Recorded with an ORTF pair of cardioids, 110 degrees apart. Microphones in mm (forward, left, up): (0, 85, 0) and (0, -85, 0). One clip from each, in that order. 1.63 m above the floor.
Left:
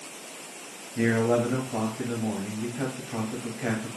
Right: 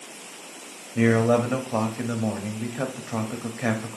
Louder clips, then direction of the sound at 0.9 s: Right 3 dB; 40° right.